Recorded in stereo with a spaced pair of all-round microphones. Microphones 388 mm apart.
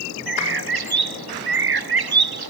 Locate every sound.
0.3 s a bird: 70° right (ahead or behind), 0.6 m